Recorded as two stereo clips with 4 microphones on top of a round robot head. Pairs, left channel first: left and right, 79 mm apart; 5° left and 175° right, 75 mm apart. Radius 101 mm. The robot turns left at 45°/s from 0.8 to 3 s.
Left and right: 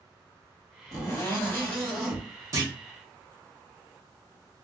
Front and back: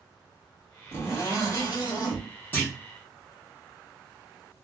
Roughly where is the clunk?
Ahead right.